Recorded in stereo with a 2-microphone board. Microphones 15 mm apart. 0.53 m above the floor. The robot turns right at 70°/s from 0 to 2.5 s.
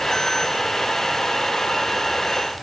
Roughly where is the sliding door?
No sliding door in this recording.